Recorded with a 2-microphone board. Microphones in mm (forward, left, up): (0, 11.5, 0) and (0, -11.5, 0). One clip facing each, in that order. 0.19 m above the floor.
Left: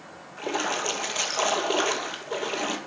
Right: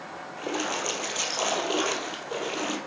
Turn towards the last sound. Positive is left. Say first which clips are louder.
# left 2 dB
turn(degrees=15)  # may be behind; listen again after turning